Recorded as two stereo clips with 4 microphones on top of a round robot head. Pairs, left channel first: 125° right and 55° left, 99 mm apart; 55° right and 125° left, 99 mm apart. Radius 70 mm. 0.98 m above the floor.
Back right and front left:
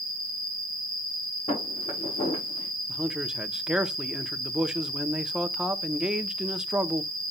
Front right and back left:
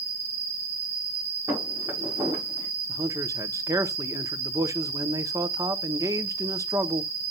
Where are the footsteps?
165° right, 7 m.